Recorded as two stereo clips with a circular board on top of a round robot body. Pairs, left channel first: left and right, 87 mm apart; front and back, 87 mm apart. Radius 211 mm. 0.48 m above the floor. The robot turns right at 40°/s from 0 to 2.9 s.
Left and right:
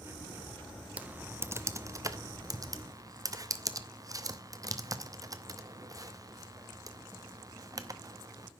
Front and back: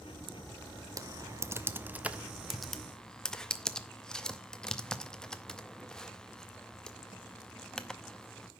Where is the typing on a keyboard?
155° right, 1.1 m; by 8.5 s 80° right, 1.1 m.